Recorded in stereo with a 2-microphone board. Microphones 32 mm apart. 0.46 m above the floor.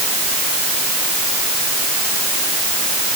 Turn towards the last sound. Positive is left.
No sound to turn to.